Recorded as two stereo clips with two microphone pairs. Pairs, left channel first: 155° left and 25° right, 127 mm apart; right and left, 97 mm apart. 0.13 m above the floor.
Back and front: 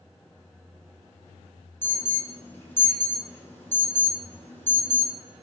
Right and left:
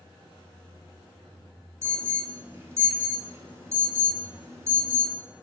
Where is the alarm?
110° left, 0.8 m.